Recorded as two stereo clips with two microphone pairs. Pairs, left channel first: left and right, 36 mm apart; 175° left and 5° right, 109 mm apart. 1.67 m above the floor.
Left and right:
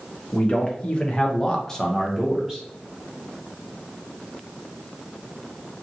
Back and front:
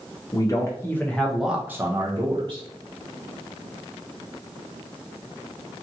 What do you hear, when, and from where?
0.3 s a man speaking: 135° left, 0.8 m; by 2.6 s 5° right, 0.8 m